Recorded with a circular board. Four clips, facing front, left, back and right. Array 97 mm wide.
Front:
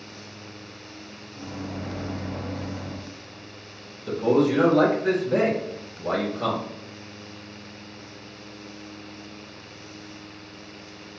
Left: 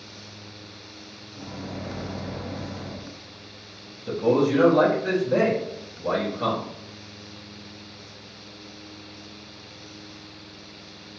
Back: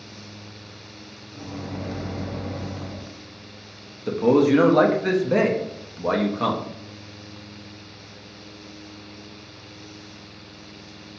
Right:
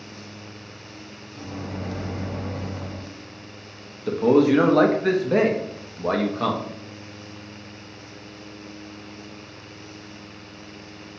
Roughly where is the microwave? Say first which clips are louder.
Right 2 dB, back 1 dB; behind right.